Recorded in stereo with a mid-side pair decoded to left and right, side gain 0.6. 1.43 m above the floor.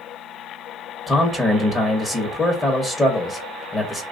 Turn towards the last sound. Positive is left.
turn(degrees=15)